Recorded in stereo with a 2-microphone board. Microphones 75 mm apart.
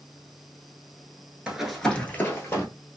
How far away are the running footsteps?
About 0.8 m.